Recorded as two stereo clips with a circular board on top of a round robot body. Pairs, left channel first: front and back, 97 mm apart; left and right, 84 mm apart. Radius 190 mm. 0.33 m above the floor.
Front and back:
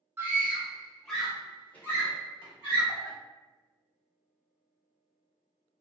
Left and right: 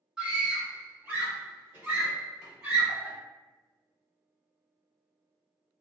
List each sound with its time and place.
0.2 s a scream: 150° right, 1.2 m; by 3.1 s 35° right, 1.7 m